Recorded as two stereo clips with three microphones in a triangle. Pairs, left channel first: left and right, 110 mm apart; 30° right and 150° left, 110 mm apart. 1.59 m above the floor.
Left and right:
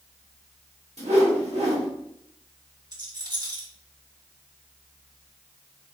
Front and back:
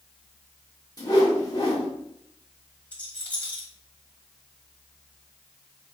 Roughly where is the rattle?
Right.